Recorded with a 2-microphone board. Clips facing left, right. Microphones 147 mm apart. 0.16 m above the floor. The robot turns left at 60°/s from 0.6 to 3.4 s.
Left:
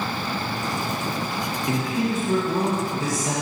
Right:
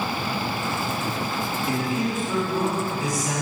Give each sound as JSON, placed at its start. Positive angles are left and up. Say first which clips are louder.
{"t": 1.7, "sound": "a man speaking", "louder": "left 2 dB", "azimuth_deg": 140, "distance_m": 1.5}